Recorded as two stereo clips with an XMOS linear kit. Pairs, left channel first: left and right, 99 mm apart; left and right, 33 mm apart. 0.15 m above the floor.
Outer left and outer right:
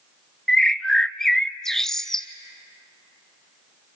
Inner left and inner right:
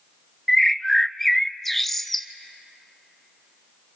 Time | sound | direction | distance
0.5 | a bird | 5° left (ahead or behind) | 0.5 m